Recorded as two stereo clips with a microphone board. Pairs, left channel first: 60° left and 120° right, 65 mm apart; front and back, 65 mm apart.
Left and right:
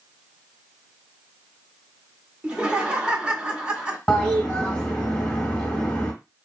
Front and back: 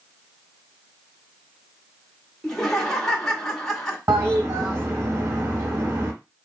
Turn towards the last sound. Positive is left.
turn(degrees=135)